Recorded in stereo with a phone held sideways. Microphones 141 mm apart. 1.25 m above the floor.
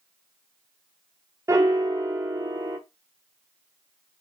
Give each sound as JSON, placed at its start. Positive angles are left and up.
{"t": 1.5, "sound": "a piano", "side_deg": -20, "distance_m": 0.5}